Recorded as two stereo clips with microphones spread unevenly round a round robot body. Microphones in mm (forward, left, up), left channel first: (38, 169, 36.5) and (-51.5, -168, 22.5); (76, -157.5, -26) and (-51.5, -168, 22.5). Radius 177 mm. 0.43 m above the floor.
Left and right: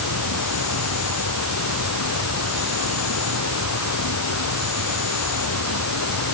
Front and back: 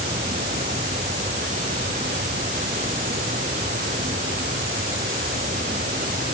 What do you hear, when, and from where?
0.0 s an insect: 125° left